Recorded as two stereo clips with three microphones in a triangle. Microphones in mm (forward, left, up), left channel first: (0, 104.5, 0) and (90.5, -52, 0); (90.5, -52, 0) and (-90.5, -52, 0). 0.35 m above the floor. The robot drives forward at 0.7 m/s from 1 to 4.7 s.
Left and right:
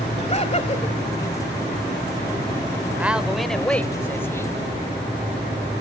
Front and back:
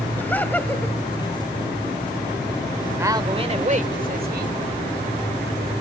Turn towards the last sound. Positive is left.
turn(degrees=-170)